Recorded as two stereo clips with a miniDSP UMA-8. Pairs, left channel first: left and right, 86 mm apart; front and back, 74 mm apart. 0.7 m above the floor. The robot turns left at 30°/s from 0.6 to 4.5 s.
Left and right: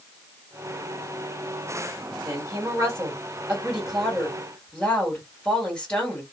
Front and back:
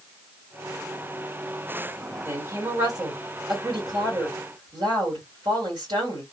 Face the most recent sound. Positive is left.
turn(degrees=165)